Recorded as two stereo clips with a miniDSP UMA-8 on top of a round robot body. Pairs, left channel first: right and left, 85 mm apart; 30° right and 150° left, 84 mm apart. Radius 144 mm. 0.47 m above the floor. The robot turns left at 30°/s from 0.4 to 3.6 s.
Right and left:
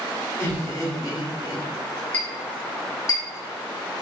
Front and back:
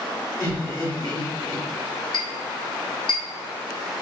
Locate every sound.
0.4 s laughter: 40° right, 1.8 m; by 1.6 s 75° right, 1.8 m
2.1 s a clink: 20° right, 1.6 m; by 4.0 s 60° right, 1.6 m